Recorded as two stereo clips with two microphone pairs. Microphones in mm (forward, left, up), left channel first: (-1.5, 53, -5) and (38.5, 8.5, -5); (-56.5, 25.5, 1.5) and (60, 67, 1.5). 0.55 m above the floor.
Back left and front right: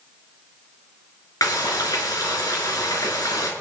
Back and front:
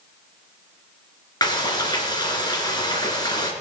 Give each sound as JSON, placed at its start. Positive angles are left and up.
{"t": 1.4, "sound": "frying", "azimuth_deg": 140, "distance_m": 3.5}